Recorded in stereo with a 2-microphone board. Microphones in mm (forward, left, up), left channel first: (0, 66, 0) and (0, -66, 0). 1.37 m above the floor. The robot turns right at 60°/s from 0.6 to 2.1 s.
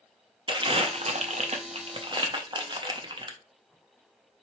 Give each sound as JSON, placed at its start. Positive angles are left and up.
{"t": 0.5, "sound": "crumpling", "side_deg": -40, "distance_m": 0.6}